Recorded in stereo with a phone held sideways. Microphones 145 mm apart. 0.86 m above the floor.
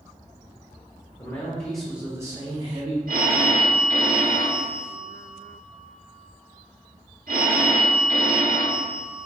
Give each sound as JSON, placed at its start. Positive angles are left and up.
{"t": 1.2, "sound": "a man speaking", "side_deg": 25, "distance_m": 0.8}
{"t": 3.1, "sound": "a phone ringing", "side_deg": -85, "distance_m": 0.9}